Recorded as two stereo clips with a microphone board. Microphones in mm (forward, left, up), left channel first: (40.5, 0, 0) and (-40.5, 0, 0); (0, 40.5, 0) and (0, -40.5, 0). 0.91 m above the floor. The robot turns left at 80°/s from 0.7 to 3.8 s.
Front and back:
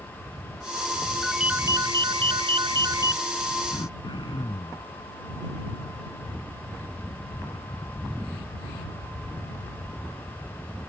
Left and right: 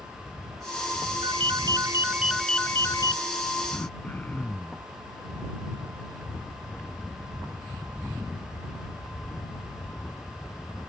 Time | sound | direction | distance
1.2 | a ringtone | 85° right | ?
3.7 | throat clearing | 25° left | ?